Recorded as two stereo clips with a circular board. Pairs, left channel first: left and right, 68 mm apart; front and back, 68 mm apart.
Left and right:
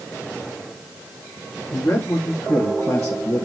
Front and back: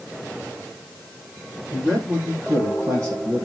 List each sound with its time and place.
1.7 s a man speaking: 140° left, 4 m; by 3.5 s 130° left, 3 m